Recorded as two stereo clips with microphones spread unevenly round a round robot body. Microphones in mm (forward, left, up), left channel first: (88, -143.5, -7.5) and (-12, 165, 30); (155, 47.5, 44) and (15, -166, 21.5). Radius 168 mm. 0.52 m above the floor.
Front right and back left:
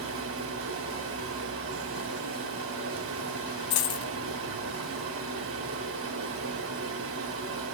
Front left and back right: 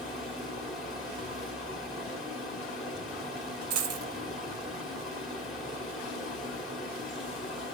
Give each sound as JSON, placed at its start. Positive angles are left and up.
{"t": 0.0, "sound": "running water", "azimuth_deg": 150, "distance_m": 1.2}
{"t": 3.7, "sound": "a dropped coin", "azimuth_deg": -95, "distance_m": 0.6}